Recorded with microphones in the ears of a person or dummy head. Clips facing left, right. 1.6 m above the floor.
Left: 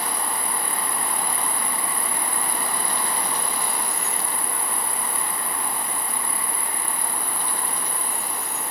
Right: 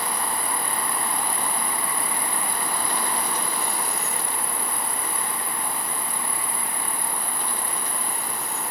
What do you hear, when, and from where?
0.0 s an insect: 80° left, 4.5 m